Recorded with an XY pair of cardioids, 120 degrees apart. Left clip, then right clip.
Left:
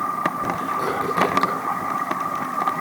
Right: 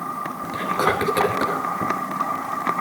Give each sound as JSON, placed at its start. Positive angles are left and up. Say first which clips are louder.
{"t": 0.5, "sound": "whispering", "louder": "right 2 dB", "azimuth_deg": -70, "distance_m": 6.0}